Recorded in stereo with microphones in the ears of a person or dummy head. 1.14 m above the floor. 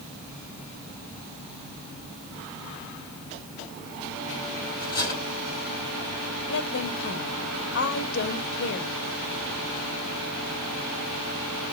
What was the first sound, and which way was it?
Cutlery clinking, 25° left (ahead or behind).